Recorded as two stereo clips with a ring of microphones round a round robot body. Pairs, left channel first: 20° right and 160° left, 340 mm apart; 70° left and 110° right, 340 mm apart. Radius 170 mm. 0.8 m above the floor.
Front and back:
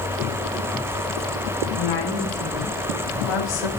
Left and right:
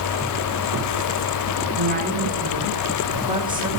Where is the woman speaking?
45° right, 6 m; by 3.7 s 35° right, 4 m.